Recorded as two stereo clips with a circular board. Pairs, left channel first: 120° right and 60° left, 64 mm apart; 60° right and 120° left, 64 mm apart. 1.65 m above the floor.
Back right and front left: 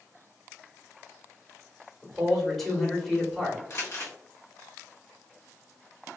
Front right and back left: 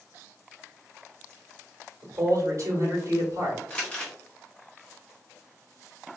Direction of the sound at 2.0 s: 150° left.